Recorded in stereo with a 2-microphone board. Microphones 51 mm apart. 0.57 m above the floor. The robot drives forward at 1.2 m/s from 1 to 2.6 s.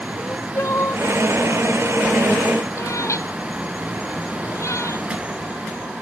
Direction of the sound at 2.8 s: 80° left.